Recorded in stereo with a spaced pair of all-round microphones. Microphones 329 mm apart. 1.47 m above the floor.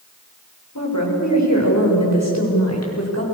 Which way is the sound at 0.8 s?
60° left (ahead or behind).